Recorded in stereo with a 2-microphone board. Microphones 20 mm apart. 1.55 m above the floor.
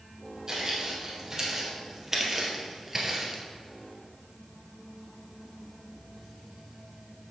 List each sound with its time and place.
0.5 s footsteps: 25° right (ahead or behind), 3.5 m; by 3.4 s 10° right (ahead or behind), 1.9 m